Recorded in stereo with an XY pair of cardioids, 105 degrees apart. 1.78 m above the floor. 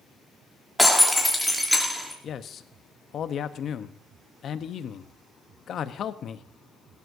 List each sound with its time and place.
0.8 s breaking glass: 5° left, 3 m
2.2 s a man speaking: 60° left, 1.0 m